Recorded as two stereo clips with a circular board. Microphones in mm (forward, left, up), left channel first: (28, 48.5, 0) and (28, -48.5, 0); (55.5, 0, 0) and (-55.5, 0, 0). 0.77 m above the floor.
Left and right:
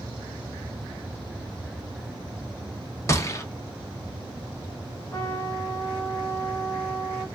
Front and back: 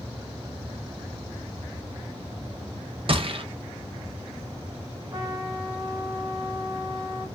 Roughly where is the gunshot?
Behind left.